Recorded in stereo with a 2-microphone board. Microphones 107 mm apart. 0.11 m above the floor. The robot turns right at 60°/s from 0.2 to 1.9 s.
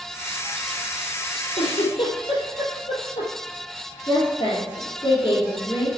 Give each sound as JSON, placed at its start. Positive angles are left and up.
{"t": 1.6, "sound": "a giggle", "side_deg": 65, "distance_m": 2.5}
{"t": 4.1, "sound": "a woman speaking", "side_deg": 40, "distance_m": 3.0}